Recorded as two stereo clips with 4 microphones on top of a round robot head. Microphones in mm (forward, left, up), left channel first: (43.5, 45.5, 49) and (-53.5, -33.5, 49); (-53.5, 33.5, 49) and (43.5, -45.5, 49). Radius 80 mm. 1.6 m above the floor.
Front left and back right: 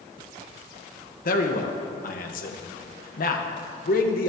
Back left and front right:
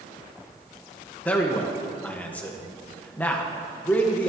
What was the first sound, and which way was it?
A man speaking, 60° left.